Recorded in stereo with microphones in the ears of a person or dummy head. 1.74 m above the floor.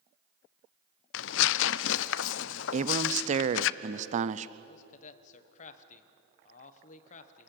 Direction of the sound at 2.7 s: 45° right (ahead or behind).